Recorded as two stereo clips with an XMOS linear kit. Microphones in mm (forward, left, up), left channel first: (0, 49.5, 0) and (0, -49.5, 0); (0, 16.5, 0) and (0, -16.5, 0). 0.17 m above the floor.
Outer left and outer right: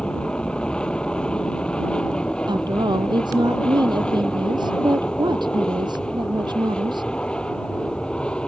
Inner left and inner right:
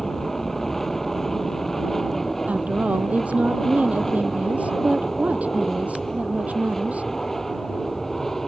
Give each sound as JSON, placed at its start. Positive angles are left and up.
{"t": 0.0, "sound": "an aircraft", "side_deg": 10}
{"t": 2.5, "sound": "a woman speaking", "side_deg": -50}